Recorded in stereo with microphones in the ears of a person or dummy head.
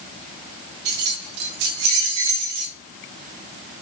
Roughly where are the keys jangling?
Right.